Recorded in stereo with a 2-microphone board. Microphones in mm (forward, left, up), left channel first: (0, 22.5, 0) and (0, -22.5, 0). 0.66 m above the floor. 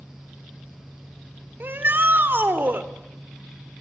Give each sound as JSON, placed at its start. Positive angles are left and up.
{"t": 1.6, "sound": "a shout", "side_deg": -50, "distance_m": 2.0}